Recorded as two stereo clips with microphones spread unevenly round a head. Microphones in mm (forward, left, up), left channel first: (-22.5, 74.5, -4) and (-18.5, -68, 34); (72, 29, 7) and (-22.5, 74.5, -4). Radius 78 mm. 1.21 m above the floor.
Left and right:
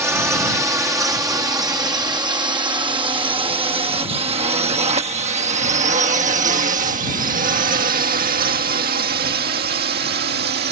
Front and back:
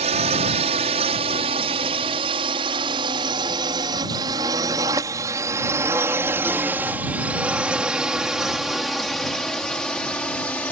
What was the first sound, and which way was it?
A drone, 165° right.